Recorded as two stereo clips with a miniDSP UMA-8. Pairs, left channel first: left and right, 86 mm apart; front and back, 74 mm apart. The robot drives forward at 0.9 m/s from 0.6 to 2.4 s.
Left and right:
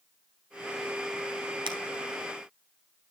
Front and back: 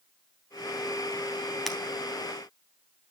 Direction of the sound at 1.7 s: 90° right.